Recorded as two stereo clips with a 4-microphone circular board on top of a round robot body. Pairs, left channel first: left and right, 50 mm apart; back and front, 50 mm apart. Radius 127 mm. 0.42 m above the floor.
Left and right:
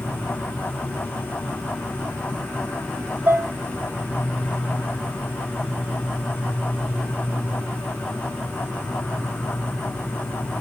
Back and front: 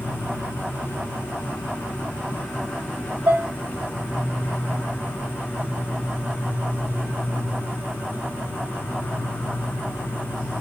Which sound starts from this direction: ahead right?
Dishes clattering, at 3.3 s.